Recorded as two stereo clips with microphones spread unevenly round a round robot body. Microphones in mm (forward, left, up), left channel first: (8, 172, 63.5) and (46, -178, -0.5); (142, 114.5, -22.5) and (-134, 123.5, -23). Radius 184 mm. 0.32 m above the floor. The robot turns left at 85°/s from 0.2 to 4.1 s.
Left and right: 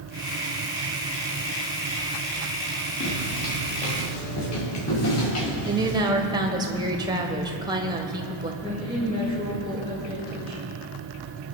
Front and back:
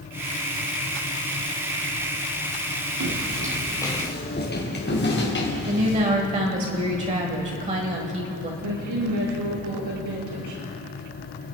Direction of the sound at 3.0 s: 155° left.